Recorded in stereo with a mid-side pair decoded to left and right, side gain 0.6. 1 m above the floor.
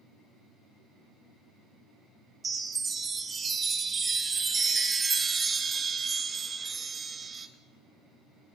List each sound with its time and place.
2.4 s a chime: 25° right, 0.8 m